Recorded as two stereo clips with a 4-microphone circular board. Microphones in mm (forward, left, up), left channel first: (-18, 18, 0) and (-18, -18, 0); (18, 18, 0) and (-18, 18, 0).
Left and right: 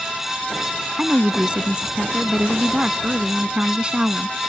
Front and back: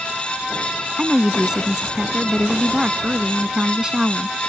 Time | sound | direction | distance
1.0 | a woman speaking | 125° right | ?